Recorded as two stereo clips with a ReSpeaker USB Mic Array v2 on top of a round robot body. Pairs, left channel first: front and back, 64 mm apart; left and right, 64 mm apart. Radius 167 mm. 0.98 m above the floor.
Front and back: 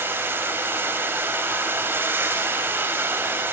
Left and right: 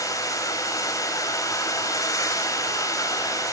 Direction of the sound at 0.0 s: 120° left.